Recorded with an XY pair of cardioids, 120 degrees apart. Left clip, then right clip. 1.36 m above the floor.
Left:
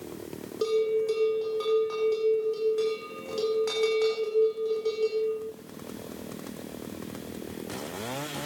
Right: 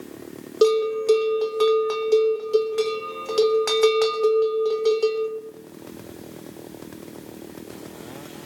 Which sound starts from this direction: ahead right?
A bell, at 0.6 s.